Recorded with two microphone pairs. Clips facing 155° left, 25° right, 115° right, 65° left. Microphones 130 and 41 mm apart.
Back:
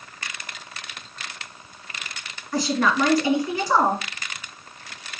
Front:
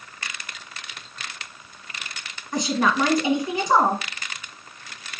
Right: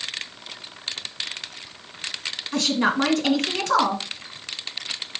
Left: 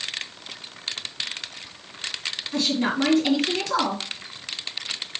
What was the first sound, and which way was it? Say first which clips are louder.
A woman speaking: even, right 2 dB; 95° right.